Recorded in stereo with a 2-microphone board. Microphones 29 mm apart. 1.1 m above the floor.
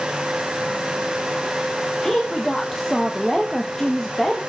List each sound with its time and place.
2.0 s a woman speaking: 10° left (ahead or behind), 1.3 m